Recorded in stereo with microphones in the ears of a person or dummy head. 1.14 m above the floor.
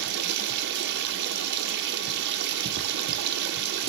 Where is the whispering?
No whispering in this recording.